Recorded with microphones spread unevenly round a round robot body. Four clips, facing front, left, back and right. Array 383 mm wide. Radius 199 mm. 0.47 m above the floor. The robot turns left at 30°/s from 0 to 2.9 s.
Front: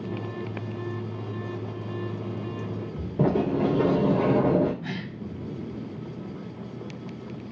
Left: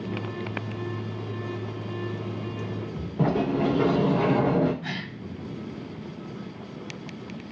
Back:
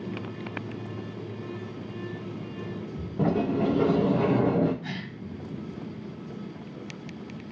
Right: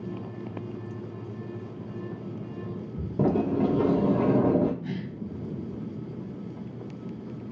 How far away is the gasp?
About 1.6 m.